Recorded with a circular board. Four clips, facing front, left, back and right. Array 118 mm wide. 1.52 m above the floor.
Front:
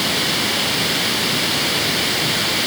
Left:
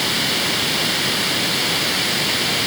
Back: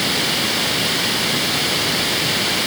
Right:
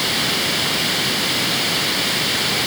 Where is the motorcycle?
I don't hear a motorcycle.